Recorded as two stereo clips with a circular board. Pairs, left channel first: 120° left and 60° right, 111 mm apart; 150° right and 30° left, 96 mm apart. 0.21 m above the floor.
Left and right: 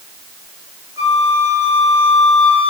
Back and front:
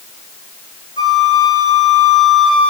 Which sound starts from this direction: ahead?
A flute, at 1.0 s.